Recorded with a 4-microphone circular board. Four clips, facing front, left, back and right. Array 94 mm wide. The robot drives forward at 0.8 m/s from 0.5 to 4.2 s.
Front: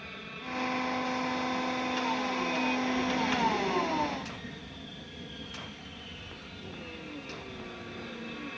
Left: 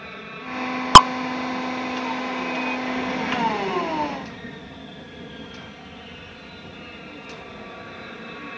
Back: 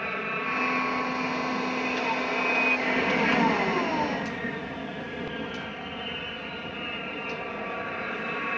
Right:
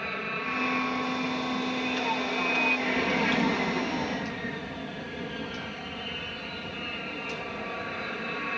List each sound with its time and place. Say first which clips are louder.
0.0 s an aircraft: right 3 dB, back 12 dB; 165° right